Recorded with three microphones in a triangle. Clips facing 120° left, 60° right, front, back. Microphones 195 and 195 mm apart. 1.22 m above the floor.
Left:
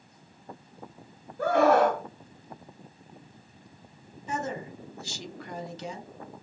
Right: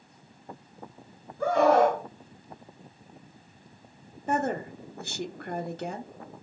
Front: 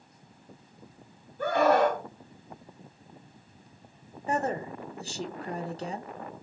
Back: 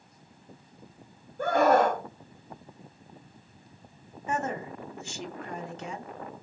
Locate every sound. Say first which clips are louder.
1.4 s a scream: even, back 1 dB; 135° left, 1.8 m
4.3 s a woman speaking: right 5 dB, front 2 dB; 45° right, 0.8 m